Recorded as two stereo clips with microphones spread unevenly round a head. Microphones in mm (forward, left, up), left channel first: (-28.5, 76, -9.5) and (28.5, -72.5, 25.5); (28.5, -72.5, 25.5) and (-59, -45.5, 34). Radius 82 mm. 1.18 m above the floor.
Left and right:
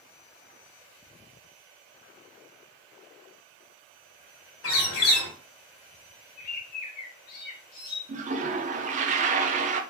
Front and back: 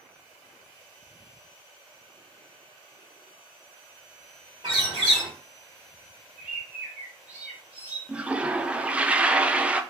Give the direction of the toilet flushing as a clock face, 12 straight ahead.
4 o'clock.